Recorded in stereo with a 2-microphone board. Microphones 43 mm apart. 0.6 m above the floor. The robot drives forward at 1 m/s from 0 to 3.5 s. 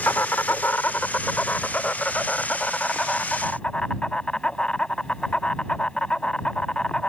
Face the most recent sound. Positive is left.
turn(degrees=20)  # may be behind; listen again after turning